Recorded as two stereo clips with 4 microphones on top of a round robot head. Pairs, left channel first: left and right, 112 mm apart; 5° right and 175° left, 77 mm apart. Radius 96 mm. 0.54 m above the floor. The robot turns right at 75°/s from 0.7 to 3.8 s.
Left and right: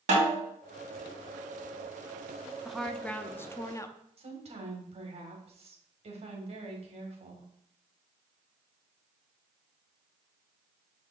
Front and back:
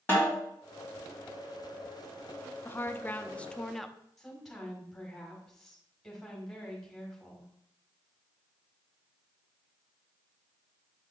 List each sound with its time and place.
0.1 s a snare drum: 75° right, 2.5 m
2.6 s a woman speaking: 5° right, 0.7 m; by 4.0 s 80° left, 0.7 m
4.2 s a woman speaking: 90° right, 1.9 m